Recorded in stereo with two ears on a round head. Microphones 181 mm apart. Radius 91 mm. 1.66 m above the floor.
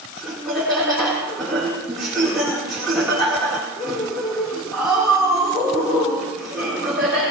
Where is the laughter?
Centre (ahead or behind), 3.5 m.